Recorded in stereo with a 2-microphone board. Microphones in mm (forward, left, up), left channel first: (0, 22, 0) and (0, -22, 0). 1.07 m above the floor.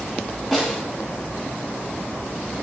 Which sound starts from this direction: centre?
A snare drum, at 0.5 s.